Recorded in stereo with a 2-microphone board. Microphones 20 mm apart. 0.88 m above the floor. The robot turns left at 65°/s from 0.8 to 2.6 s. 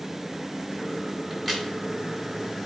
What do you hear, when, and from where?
1.3 s a crack: 5° right (ahead or behind), 3 m; by 1.7 s 20° left (ahead or behind), 3 m